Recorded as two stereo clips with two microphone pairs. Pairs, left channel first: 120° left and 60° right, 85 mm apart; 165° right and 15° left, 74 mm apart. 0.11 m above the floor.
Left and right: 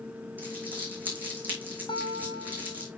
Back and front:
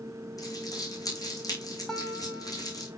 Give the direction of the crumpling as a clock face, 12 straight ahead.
4 o'clock.